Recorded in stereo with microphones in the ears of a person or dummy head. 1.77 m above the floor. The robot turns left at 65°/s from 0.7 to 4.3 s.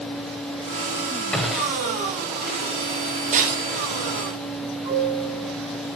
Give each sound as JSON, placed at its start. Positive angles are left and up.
{"t": 1.3, "sound": "a gunshot", "side_deg": 5, "distance_m": 1.6}
{"t": 3.3, "sound": "breaking glass", "side_deg": -40, "distance_m": 4.0}
{"t": 4.8, "sound": "a piano", "side_deg": -25, "distance_m": 7.5}